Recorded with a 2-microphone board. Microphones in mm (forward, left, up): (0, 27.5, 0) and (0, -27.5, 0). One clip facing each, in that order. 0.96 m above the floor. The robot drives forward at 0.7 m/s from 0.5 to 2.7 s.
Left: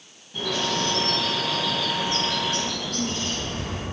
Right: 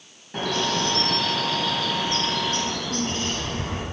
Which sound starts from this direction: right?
A bird, at 0.3 s.